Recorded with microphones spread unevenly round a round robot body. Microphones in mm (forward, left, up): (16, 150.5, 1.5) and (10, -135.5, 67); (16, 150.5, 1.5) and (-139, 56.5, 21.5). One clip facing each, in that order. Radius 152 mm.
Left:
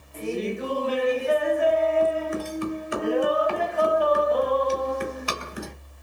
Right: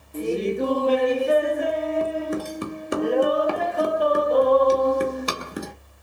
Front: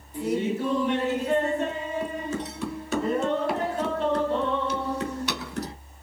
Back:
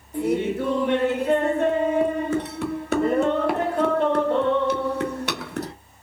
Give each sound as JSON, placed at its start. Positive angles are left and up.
{"t": 0.1, "sound": "laughter", "azimuth_deg": -135, "distance_m": 1.1}